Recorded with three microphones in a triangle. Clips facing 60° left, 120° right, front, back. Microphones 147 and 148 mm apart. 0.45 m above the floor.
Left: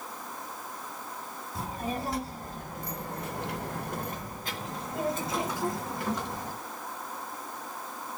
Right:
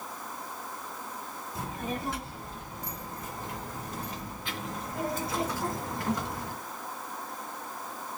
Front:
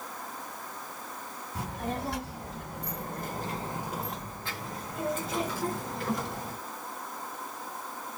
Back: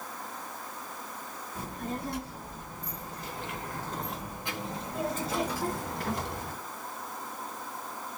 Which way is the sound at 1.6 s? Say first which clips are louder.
Left 2 dB, front 2 dB; straight ahead.